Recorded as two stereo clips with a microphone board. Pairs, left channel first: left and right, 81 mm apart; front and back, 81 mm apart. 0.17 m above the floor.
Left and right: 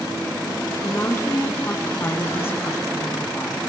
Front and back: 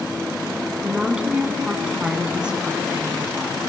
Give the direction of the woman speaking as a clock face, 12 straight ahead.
8 o'clock.